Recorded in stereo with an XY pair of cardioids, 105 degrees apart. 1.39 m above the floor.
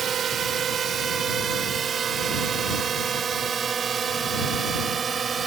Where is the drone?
50° right; by 5.5 s 40° right.